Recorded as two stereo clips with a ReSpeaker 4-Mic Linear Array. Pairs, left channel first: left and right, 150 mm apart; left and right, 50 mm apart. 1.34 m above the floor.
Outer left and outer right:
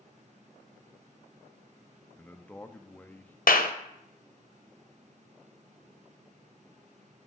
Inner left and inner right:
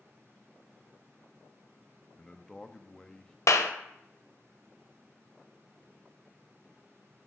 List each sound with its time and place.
2.2 s a man speaking: 10° left (ahead or behind), 0.6 m
3.5 s a clap: 75° left (ahead or behind), 0.7 m